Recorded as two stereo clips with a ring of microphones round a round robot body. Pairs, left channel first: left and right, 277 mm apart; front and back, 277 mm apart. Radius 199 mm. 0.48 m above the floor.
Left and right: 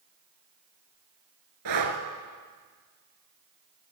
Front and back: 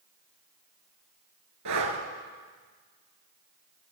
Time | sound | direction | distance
1.6 | breathing | 130° right | 1.1 m